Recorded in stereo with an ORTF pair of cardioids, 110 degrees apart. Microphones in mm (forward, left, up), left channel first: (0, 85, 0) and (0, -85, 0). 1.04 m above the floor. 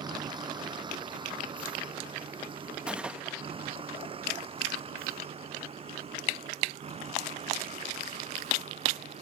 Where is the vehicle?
25° right; by 9.2 s 40° right.